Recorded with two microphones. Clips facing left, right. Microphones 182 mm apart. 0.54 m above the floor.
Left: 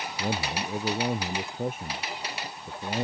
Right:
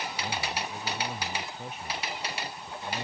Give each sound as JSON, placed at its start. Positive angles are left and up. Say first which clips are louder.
{"t": 0.2, "sound": "a man speaking", "louder": "left 6 dB", "side_deg": 55}